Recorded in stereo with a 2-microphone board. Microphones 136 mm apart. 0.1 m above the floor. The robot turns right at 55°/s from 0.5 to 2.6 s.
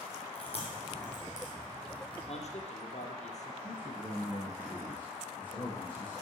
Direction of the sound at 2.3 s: 50° left (ahead or behind).